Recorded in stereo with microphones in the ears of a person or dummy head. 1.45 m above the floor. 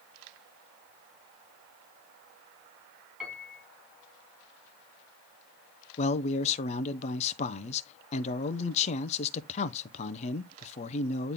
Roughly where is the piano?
Centre.